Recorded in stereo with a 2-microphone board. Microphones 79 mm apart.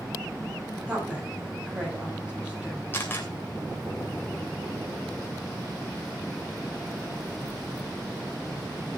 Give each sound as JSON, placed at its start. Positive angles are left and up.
{"t": 0.9, "sound": "a woman speaking", "side_deg": -15, "distance_m": 9.0}
{"t": 2.9, "sound": "a camera shutter", "side_deg": 25, "distance_m": 3.0}